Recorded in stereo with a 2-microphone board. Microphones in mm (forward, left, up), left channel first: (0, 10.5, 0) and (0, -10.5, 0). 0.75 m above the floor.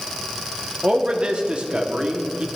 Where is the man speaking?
50° right (ahead or behind), 1.4 m.